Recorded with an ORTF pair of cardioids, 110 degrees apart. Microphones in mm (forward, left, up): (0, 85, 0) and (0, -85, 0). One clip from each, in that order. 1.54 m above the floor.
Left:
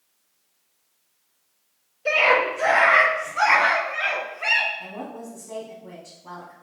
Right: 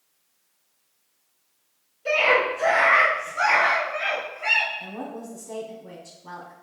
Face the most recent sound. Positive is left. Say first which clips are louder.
# even
turn(degrees=0)